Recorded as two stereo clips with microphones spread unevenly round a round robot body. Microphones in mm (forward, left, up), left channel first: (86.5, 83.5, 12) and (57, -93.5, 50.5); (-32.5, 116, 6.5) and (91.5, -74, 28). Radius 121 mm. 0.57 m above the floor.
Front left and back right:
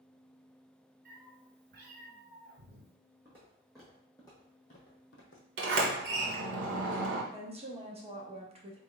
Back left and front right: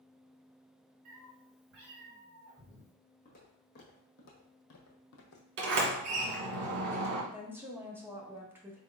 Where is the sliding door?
90° right, 1.4 m.